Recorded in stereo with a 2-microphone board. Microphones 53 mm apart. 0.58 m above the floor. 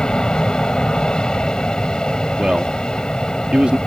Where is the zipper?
No zipper in this recording.